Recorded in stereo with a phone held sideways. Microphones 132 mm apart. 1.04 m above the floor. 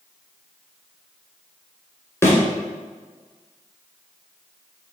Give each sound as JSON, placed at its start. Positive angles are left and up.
{"t": 2.2, "sound": "a thud", "side_deg": 20, "distance_m": 2.5}